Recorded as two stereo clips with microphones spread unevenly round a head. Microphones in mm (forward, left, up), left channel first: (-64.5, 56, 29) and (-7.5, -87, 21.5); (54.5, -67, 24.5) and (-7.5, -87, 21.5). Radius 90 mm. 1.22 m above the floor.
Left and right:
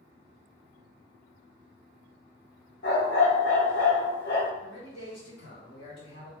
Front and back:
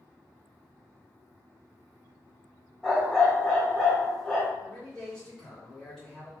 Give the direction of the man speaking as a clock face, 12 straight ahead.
9 o'clock.